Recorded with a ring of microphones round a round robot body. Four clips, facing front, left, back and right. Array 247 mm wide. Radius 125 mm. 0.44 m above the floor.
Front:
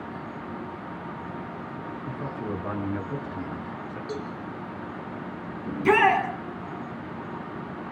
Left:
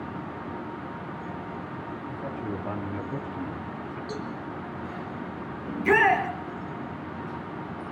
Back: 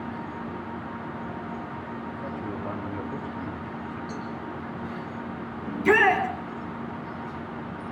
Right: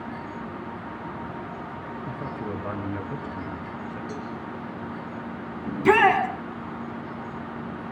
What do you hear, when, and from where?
2.1 s a man speaking: 45° right, 7.5 m; by 4.0 s 30° right, 8.5 m
4.1 s a cowbell: 15° left, 6 m
5.7 s a shout: 65° right, 5.5 m